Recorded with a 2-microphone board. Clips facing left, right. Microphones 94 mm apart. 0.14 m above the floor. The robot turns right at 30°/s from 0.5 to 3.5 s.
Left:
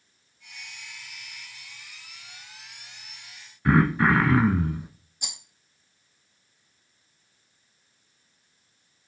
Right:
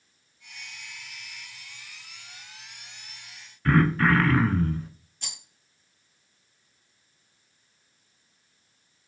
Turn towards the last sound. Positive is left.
turn(degrees=15)  # may be behind; listen again after turning